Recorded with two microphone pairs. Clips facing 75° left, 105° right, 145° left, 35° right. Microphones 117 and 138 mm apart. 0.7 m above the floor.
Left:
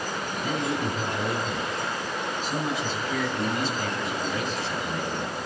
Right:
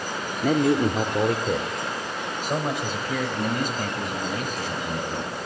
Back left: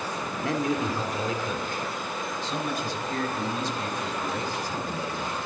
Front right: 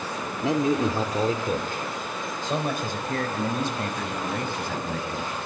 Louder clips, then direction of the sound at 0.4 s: Right 9 dB, front right 5 dB; 110° right.